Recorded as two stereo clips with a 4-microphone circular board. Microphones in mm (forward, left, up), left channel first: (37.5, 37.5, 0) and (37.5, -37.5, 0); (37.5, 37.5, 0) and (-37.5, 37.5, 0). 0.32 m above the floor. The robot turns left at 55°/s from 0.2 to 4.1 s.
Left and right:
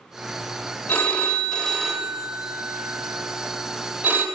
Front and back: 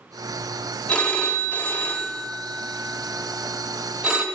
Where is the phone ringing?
55° left, 0.7 m; by 4.2 s 120° right, 0.7 m.